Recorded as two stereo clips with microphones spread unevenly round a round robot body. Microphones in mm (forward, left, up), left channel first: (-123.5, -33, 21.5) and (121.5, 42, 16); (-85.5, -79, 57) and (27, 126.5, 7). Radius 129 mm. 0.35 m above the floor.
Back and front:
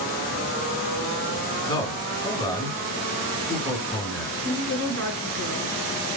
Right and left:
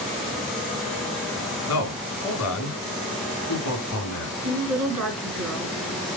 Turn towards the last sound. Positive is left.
turn(degrees=60)